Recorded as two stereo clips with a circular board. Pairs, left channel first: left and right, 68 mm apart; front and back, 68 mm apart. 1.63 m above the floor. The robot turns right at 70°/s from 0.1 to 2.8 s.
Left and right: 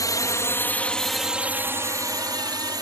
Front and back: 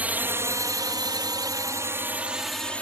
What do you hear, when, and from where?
0.0 s a drone: 115° left; by 2.8 s 70° right